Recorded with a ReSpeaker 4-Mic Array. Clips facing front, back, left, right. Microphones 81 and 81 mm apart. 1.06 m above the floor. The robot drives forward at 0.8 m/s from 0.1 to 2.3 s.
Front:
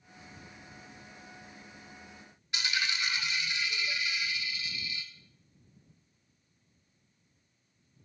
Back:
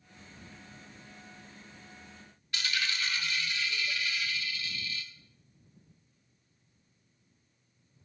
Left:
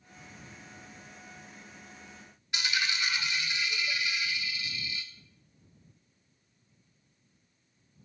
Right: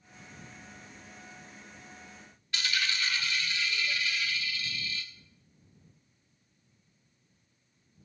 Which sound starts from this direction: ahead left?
A dropped coin, at 2.5 s.